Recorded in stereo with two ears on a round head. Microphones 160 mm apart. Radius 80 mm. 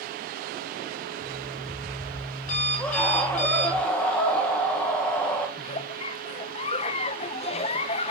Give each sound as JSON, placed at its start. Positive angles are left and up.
{"t": 1.2, "sound": "an alarm clock", "side_deg": 45, "distance_m": 8.5}
{"t": 2.8, "sound": "a scream", "side_deg": 10, "distance_m": 1.9}
{"t": 5.6, "sound": "a giggle", "side_deg": 35, "distance_m": 0.6}